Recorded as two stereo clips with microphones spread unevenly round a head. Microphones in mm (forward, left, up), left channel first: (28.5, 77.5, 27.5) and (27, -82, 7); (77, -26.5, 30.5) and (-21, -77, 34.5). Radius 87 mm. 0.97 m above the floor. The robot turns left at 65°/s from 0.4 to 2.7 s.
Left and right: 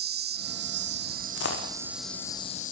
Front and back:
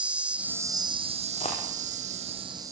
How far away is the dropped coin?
About 6.5 m.